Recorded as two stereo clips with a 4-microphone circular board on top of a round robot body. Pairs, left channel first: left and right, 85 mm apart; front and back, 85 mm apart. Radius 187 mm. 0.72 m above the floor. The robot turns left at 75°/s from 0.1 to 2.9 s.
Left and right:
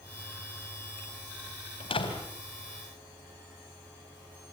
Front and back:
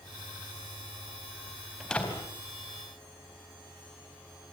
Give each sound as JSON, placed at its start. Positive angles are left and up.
{"t": 1.8, "sound": "a door slam", "azimuth_deg": 90, "distance_m": 4.0}